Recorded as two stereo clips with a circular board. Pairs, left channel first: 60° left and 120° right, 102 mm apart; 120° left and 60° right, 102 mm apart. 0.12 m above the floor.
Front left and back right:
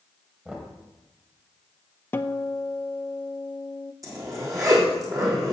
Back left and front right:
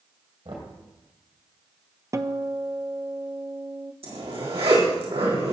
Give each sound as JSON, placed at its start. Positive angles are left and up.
{"t": 0.5, "sound": "knocking", "azimuth_deg": -45, "distance_m": 2.5}
{"t": 2.1, "sound": "a guitar", "azimuth_deg": -5, "distance_m": 0.5}
{"t": 4.0, "sound": "a zipper", "azimuth_deg": -65, "distance_m": 4.0}